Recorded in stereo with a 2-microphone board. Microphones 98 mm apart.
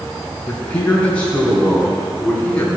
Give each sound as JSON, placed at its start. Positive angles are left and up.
{"t": 0.5, "sound": "a man speaking", "side_deg": 10, "distance_m": 4.0}